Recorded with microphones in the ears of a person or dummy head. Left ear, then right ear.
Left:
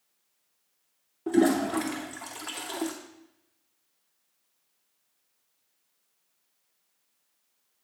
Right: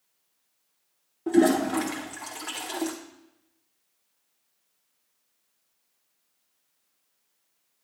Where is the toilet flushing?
5° left (ahead or behind), 0.9 m.